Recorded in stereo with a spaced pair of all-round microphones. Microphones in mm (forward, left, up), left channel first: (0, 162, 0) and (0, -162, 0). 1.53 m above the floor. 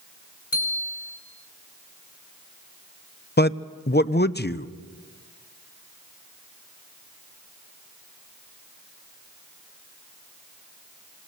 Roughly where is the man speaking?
Left.